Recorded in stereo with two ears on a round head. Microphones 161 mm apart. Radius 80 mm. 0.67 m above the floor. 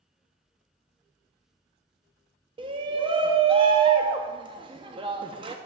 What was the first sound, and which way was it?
A shout, 30° right (ahead or behind).